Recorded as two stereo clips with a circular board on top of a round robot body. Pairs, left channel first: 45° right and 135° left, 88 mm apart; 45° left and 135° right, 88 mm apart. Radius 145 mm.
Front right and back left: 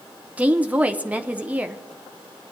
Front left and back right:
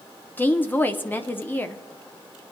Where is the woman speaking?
85° left, 1.0 m.